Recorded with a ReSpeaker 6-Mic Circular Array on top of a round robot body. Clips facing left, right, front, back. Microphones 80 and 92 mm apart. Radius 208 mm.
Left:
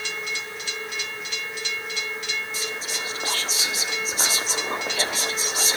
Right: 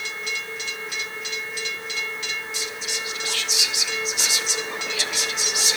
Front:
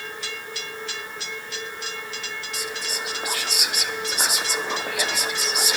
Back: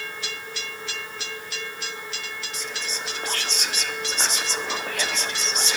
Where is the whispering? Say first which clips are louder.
Left 1 dB, front 2 dB; 75° left, 1.5 m.